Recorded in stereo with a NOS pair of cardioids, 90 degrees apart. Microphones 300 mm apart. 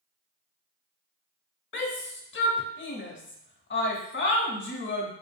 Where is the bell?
No bell in this recording.